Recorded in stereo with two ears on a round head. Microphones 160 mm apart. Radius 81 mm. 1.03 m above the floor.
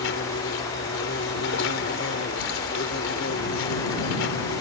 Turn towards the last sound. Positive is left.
turn(degrees=80)